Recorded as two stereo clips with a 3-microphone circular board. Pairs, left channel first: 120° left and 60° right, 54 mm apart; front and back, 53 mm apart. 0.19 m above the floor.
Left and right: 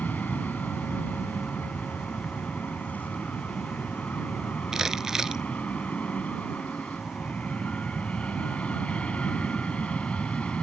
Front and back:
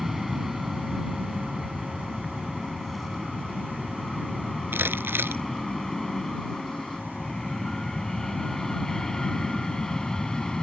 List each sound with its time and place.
0.0 s an aircraft: 95° left; by 10.6 s 70° left
4.7 s crumpling: 140° right